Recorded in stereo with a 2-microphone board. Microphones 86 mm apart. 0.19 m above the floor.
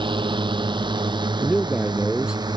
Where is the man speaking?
10° right (ahead or behind).